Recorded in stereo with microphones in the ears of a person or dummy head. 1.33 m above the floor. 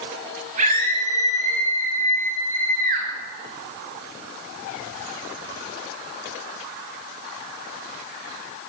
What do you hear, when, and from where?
0.6 s a scream: 50° right (ahead or behind), 8.5 m; by 3.1 s 55° right (ahead or behind), 8 m